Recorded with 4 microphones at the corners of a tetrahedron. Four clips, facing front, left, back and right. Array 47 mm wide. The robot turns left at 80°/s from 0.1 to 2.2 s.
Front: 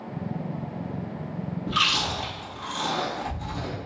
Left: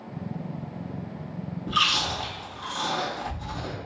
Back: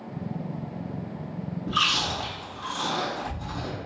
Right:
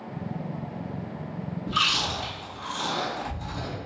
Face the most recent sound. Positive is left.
turn(degrees=-40)